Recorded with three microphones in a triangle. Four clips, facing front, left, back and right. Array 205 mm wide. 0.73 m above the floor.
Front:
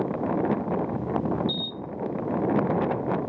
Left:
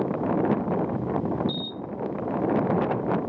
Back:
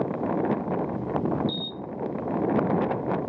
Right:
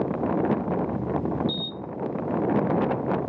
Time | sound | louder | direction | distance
1.5 | a camera shutter | even, even | 140° right | 1.3 m